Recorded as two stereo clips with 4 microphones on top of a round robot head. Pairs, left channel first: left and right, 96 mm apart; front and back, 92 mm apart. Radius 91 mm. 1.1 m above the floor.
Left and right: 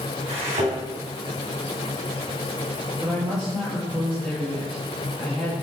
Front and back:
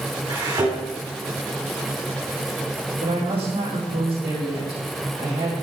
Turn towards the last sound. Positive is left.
turn(degrees=180)